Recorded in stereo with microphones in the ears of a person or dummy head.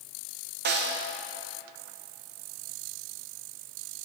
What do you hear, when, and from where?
0.7 s a snare drum: 50° right (ahead or behind), 0.9 m